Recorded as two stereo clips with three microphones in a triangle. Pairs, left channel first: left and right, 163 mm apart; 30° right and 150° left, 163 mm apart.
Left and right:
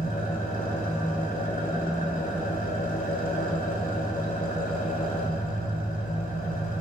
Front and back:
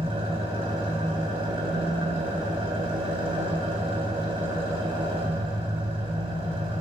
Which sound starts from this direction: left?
An engine running, at 0.0 s.